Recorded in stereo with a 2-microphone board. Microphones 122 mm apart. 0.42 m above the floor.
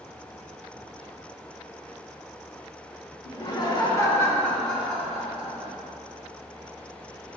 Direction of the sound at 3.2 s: 45° left (ahead or behind).